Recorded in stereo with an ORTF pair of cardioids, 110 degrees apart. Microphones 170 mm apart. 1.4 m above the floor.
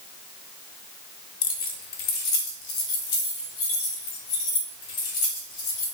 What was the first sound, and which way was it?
Keys jangling, 55° left.